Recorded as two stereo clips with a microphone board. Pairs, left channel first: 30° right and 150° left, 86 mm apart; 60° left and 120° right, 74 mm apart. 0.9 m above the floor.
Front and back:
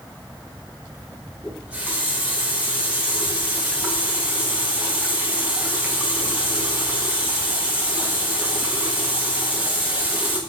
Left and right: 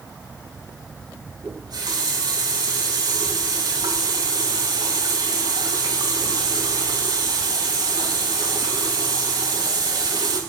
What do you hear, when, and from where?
1.4 s a running tap: 135° right, 5.5 m